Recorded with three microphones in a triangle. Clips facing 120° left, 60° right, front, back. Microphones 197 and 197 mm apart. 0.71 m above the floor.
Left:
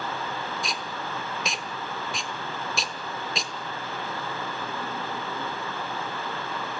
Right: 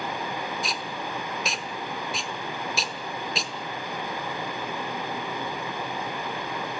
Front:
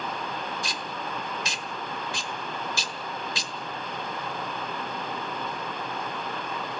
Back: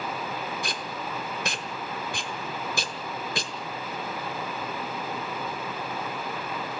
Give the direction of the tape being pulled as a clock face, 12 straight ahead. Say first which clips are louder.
Right 1 dB, back 1 dB; 5 o'clock.